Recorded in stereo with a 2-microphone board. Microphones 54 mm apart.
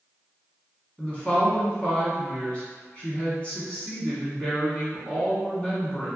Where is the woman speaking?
25° left (ahead or behind), 1.1 m.